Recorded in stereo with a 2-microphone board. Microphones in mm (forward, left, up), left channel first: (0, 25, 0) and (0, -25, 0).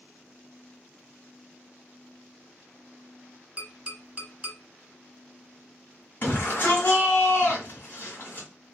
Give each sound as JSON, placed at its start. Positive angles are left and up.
{"t": 3.6, "sound": "tapping", "side_deg": -30, "distance_m": 1.2}
{"t": 6.2, "sound": "a shout", "side_deg": 35, "distance_m": 2.0}